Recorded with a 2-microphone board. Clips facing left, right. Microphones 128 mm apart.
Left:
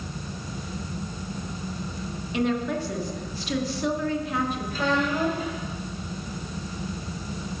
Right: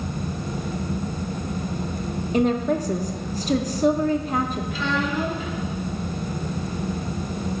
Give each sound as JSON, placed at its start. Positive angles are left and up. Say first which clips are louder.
{"t": 2.3, "sound": "a woman speaking", "louder": "right 5 dB", "side_deg": -40, "distance_m": 0.7}
{"t": 4.7, "sound": "a child speaking", "louder": "left 1 dB", "side_deg": 45, "distance_m": 2.5}